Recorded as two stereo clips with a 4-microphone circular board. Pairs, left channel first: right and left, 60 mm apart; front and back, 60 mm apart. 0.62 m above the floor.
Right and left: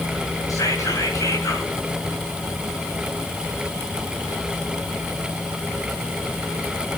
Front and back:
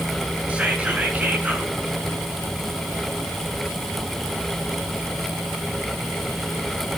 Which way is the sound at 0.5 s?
115° right.